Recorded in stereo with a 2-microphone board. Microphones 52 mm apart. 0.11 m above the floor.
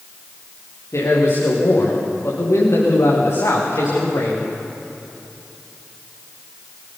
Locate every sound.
0.9 s a man speaking: 65° left (ahead or behind), 10 m